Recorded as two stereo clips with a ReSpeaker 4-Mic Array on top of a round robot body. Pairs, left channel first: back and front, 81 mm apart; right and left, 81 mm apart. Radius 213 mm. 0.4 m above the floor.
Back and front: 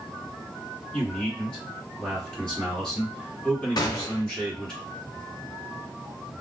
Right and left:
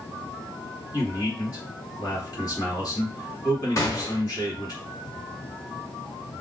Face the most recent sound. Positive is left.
turn(degrees=-140)